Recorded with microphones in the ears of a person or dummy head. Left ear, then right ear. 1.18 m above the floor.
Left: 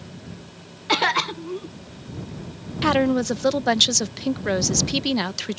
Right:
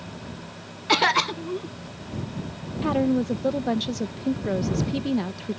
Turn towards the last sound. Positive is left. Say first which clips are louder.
# left 4 dB
turn(degrees=55)  # may be behind; listen again after turning